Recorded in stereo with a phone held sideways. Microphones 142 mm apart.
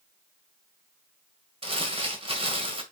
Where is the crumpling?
45° right (ahead or behind), 2.0 m.